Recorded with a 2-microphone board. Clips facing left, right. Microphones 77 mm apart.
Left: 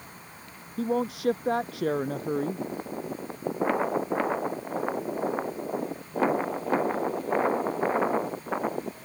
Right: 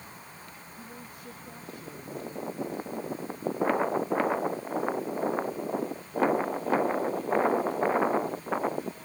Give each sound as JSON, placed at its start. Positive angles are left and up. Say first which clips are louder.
{"t": 0.8, "sound": "a man speaking", "louder": "left 21 dB", "side_deg": 80}